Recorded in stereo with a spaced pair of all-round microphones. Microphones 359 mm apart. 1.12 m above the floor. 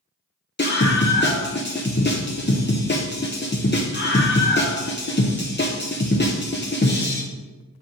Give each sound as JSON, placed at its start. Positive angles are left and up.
{"t": 0.6, "sound": "a scream", "side_deg": 30, "distance_m": 0.7}